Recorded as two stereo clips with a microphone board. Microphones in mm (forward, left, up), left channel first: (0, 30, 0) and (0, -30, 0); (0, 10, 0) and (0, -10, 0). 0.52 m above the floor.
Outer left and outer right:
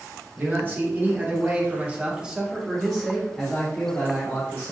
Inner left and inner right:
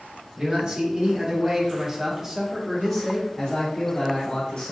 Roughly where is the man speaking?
Right.